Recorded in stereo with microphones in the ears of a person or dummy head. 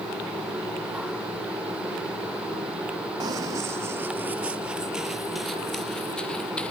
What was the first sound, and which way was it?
Running footsteps, 25° right (ahead or behind).